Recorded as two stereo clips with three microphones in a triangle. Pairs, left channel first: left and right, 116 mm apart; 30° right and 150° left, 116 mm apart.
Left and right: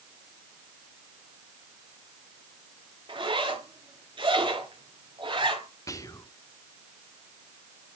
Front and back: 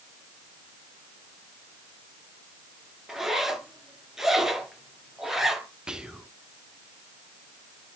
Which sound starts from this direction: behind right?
A zipper, at 3.1 s.